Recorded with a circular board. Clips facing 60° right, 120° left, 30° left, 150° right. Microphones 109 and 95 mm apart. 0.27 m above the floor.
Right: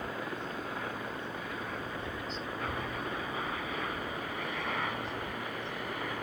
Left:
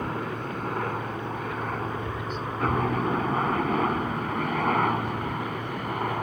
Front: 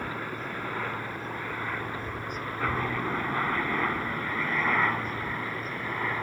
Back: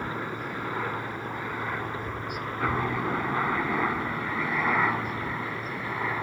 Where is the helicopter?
135° left; by 6.2 s 130° left.